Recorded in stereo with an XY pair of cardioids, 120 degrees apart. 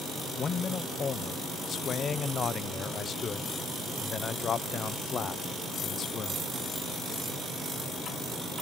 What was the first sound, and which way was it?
A man speaking, 40° left.